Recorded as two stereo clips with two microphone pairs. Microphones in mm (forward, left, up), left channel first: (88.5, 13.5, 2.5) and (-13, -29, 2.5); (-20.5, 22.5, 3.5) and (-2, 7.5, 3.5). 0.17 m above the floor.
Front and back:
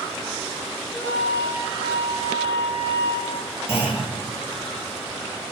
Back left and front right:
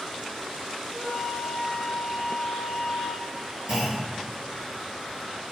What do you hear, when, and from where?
0.9 s a flute: 50° left, 1.2 m
3.7 s a clunk: 30° right, 1.8 m